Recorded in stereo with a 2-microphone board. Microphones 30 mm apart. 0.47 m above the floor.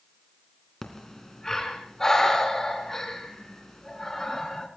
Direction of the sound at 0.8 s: 15° left (ahead or behind).